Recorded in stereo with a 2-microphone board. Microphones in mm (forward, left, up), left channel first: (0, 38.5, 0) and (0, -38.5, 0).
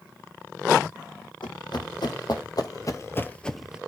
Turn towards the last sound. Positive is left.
turn(degrees=-10)  # may be behind; listen again after turning